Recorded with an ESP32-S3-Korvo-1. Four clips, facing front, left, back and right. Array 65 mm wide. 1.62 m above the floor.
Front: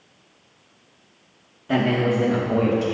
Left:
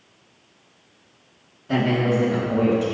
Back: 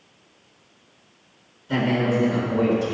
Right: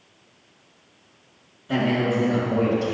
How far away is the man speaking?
About 2.5 m.